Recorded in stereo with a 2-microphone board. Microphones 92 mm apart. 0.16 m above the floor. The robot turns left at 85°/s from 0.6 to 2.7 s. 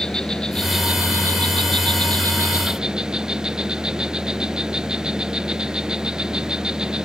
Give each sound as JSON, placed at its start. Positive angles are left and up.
{"t": 0.0, "sound": "an insect", "azimuth_deg": 10}